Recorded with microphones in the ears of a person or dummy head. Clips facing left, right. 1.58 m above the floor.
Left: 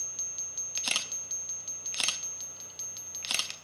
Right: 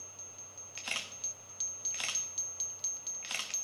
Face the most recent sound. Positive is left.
turn(degrees=60)  # may be behind; listen again after turning